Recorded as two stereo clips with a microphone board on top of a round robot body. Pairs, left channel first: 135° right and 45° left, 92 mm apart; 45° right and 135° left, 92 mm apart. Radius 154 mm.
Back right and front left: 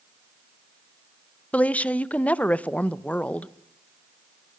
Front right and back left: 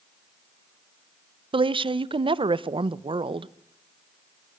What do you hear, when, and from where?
1.5 s a woman speaking: 150° left, 0.7 m